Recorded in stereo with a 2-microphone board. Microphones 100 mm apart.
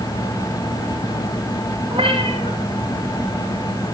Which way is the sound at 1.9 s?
80° right.